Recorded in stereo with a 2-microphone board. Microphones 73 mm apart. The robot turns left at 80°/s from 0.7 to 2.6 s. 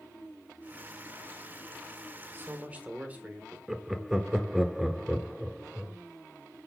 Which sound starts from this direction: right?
A man speaking, at 2.3 s.